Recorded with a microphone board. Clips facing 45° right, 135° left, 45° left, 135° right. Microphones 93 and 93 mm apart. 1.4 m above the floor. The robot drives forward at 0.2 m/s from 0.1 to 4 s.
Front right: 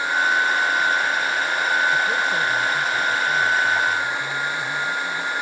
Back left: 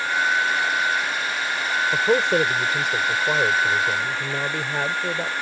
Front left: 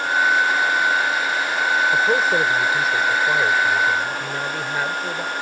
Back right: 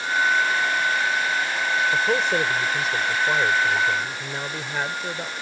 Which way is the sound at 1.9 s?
125° left.